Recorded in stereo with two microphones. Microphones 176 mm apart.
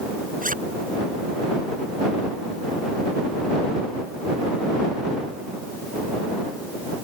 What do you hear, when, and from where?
0.4 s a zipper: 50° right (ahead or behind)